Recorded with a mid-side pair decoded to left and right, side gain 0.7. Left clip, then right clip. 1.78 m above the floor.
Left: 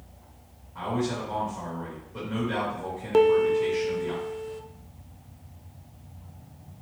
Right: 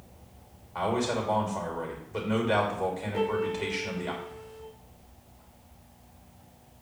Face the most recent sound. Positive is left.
turn(degrees=55)